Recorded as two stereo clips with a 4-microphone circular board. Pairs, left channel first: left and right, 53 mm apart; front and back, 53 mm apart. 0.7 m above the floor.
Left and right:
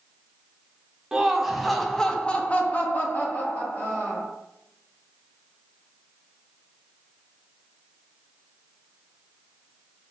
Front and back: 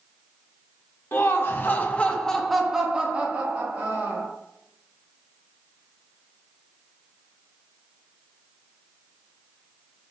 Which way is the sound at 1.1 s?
15° right.